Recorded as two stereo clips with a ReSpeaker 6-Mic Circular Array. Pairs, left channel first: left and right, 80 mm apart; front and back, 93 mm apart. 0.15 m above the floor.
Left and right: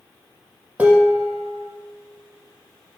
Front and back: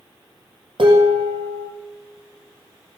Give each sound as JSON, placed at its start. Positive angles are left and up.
{"t": 0.8, "sound": "dishes clattering", "azimuth_deg": -160, "distance_m": 4.0}